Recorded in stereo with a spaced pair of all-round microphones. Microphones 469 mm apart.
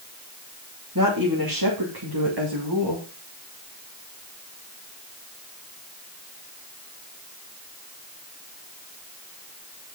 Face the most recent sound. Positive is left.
turn(degrees=-65)  # may be behind; listen again after turning